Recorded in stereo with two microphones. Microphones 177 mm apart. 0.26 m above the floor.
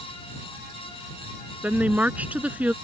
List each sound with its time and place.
1.6 s a woman speaking: 10° right (ahead or behind)